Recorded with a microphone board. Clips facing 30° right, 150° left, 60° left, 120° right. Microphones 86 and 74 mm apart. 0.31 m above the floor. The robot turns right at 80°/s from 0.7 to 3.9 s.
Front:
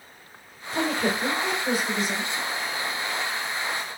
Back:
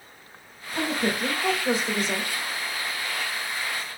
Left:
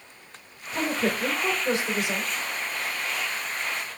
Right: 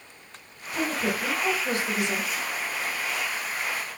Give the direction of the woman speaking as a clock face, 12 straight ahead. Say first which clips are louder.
Front 1 dB, left 1 dB; 11 o'clock.